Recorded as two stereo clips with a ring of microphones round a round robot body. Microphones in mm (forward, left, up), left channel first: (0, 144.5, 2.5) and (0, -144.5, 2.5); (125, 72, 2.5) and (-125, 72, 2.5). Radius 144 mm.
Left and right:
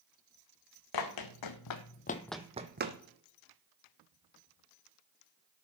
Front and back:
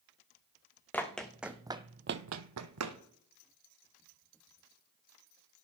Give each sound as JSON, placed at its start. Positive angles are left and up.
{"t": 0.9, "sound": "running footsteps", "azimuth_deg": 85, "distance_m": 2.0}